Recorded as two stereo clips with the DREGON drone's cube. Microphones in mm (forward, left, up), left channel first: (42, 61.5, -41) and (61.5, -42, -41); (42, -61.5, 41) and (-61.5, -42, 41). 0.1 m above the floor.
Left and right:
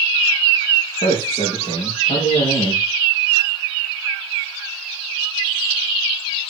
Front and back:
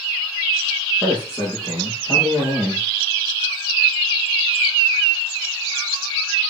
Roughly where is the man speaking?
Left.